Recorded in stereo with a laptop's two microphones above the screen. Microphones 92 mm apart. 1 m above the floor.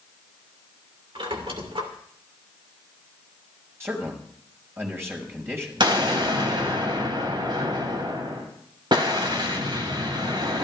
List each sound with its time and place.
1.1 s a squeak: 75° right (ahead or behind), 2.5 m
3.8 s a man speaking: 25° right (ahead or behind), 5.5 m
5.8 s an explosion: 60° right (ahead or behind), 3 m